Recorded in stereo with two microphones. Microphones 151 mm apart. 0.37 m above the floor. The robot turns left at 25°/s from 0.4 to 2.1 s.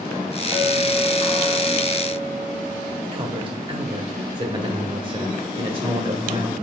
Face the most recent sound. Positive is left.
turn(degrees=-35)  # may be behind; listen again after turning